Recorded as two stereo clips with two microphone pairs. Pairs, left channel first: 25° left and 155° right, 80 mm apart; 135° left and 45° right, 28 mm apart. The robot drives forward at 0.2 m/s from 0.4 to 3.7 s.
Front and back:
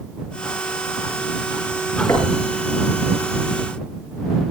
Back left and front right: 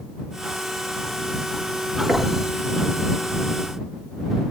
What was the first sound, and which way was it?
Knocking, 80° left.